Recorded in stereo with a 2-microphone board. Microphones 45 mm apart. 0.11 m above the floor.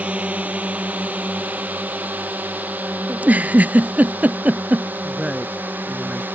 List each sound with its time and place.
0.0 s a drone: 30° right (ahead or behind); by 6.3 s 40° right (ahead or behind)
3.1 s a giggle: 35° right (ahead or behind)
5.0 s a woman speaking: 20° right (ahead or behind)